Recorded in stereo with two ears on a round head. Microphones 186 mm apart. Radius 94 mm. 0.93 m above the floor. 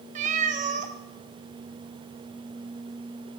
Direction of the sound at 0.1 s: 35° right (ahead or behind).